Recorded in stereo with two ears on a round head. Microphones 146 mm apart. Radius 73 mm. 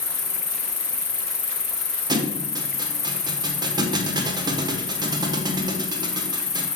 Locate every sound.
0.0 s an insect: 15° left (ahead or behind), 1.4 m
2.1 s a thud: 25° right (ahead or behind), 1.2 m